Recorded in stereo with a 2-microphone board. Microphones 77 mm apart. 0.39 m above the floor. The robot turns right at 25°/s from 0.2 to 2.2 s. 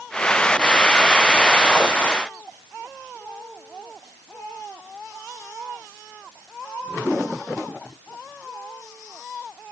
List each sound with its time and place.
Only background noise.